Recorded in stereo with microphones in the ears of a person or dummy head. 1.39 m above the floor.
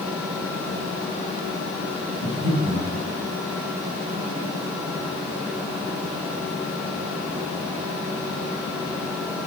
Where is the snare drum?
No snare drum in this recording.